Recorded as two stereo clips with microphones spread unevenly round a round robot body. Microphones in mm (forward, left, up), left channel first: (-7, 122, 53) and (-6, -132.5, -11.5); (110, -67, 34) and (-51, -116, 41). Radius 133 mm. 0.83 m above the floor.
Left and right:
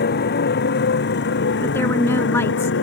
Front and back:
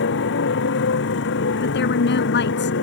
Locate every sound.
0.0 s a motorcycle: 35° left; by 2.8 s 45° left
1.6 s a woman speaking: 10° left